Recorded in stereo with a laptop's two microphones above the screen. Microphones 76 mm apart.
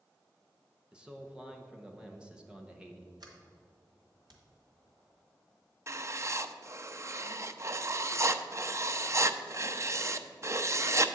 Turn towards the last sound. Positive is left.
turn(degrees=-40)  # may be behind; listen again after turning